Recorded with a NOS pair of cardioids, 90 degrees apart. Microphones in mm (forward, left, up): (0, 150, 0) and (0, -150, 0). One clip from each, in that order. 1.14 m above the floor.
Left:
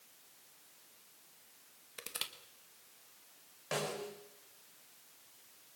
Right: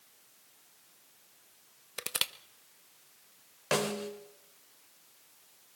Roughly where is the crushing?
Ahead right.